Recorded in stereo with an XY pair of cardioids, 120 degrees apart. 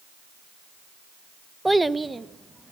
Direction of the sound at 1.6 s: 5° right.